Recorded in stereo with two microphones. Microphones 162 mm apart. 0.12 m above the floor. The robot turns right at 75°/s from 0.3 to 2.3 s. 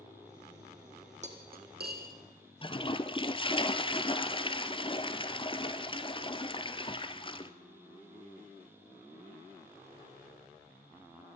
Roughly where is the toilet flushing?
Left.